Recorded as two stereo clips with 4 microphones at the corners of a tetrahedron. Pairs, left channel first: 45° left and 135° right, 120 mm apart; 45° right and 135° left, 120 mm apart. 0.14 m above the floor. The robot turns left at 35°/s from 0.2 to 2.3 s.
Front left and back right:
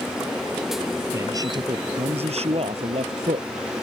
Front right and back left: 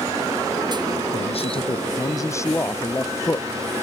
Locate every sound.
1.1 s a man speaking: 70° right; by 3.5 s 110° right